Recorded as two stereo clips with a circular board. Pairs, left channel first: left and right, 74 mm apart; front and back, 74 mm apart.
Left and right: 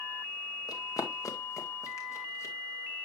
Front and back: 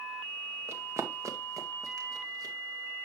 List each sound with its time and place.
0.7 s running footsteps: 125° left, 1.4 m; by 2.5 s 140° left, 2.5 m